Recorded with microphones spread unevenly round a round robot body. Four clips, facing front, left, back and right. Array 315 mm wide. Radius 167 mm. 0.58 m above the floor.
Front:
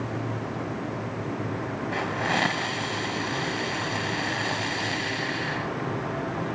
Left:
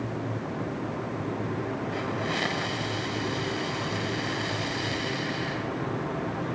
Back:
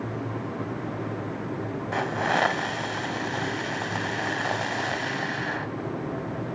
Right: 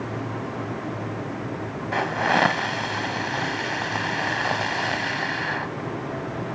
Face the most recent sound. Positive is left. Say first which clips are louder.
# right 8 dB, back 3 dB
turn(degrees=-95)